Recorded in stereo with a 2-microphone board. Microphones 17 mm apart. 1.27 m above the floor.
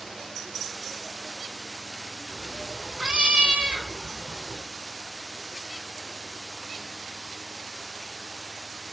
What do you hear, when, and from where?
2.3 s a cat meowing: 70° right (ahead or behind), 2 m